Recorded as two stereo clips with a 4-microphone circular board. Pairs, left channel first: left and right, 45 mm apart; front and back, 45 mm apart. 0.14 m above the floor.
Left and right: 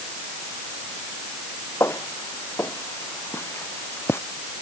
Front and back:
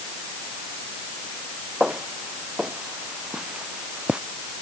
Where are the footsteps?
110° left; by 4.2 s 115° left.